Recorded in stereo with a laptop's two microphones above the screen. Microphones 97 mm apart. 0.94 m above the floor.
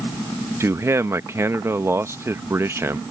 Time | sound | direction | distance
0.6 | a man speaking | 25° right (ahead or behind) | ?